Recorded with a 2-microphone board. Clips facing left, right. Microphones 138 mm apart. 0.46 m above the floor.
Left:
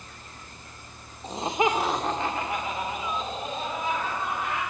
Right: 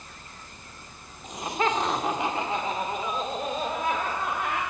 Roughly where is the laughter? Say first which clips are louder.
Left 2 dB; left.